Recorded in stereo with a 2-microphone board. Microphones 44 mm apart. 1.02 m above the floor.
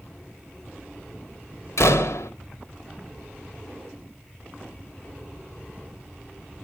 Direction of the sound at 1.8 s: 85° left.